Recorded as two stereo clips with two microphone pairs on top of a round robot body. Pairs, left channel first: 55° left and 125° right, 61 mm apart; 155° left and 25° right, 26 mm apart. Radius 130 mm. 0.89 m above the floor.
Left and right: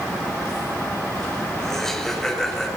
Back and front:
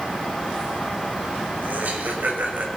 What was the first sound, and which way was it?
Laughter, 25° right.